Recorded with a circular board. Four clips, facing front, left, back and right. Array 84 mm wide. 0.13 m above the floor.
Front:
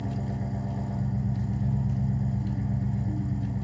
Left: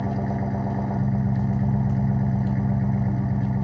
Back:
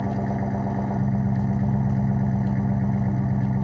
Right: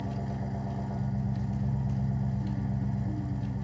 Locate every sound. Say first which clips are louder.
0.0 s an engine running: left 9 dB, back 7 dB; 145° left, 1.4 m